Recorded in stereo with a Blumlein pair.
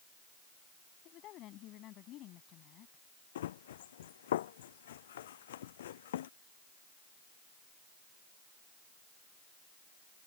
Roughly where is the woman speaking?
Ahead left.